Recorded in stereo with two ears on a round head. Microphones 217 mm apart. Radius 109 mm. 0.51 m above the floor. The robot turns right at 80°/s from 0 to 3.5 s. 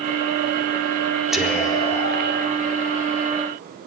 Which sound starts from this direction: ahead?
Whispering, at 1.3 s.